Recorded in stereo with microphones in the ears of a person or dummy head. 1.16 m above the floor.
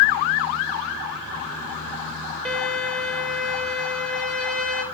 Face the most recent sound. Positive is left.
turn(degrees=0)  # may be behind; listen again after turning